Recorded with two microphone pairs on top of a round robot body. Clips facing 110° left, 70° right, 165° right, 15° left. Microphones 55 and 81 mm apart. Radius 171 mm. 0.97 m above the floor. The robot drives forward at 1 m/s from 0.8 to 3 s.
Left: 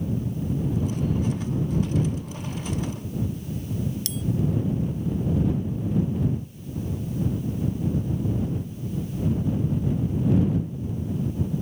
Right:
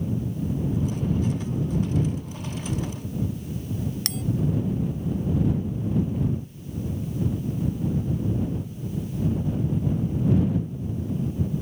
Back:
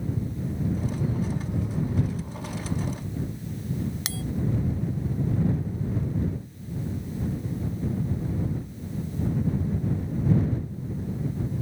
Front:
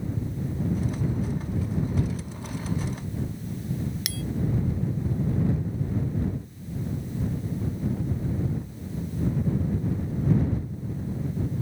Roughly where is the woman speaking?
I don't hear a woman speaking.